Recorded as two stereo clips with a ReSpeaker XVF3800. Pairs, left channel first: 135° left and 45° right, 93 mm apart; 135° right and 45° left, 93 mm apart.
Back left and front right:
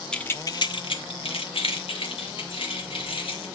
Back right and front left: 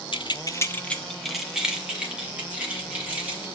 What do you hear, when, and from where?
0.1 s keys jangling: 145° right, 0.9 m; by 3.5 s 115° left, 4.5 m